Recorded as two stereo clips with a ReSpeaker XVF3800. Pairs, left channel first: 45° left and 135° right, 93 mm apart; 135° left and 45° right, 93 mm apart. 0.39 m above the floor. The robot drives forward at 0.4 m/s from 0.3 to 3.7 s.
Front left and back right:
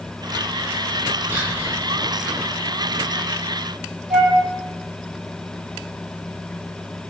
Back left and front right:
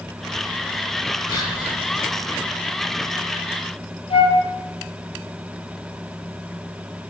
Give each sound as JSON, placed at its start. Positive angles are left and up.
{"t": 1.3, "sound": "whispering", "azimuth_deg": 165, "distance_m": 3.5}
{"t": 4.1, "sound": "a flute", "azimuth_deg": 135, "distance_m": 2.0}